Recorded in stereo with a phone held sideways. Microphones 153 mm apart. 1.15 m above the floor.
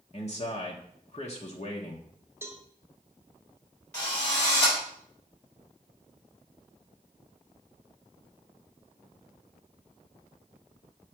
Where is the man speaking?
45° left (ahead or behind), 1.1 m.